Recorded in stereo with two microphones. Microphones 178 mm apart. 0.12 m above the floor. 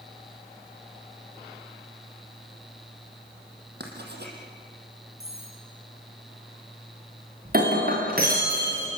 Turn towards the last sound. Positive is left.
turn(degrees=-60)  # may be behind; listen again after turning